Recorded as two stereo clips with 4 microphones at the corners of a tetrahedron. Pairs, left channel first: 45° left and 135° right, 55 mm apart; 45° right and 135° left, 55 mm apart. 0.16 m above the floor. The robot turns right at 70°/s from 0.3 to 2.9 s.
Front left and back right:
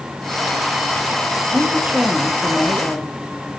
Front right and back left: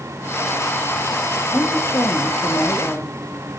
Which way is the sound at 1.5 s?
95° right.